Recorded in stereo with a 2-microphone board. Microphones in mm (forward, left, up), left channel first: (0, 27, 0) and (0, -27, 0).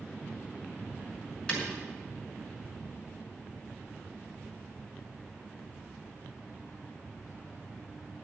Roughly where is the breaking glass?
Left.